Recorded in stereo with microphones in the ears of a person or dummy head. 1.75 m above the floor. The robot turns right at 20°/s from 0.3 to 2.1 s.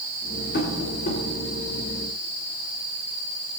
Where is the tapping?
50° left (ahead or behind), 2 m; by 1.2 s 40° left (ahead or behind), 2 m.